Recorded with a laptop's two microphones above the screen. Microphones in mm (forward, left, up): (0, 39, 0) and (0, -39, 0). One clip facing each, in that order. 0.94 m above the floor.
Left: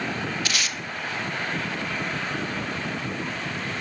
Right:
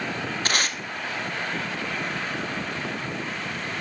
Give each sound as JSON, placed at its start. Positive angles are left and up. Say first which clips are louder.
{"t": 0.5, "sound": "tape being pulled", "louder": "right 3 dB", "side_deg": -40, "distance_m": 0.6}